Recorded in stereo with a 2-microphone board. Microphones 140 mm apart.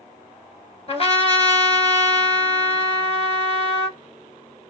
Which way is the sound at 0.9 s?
45° left (ahead or behind).